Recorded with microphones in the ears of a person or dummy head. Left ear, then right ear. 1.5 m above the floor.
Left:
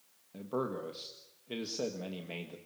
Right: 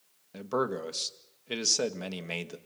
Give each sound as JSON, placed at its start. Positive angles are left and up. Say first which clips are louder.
{"t": 0.3, "sound": "a man speaking", "louder": "right 6 dB", "side_deg": -60, "distance_m": 1.8}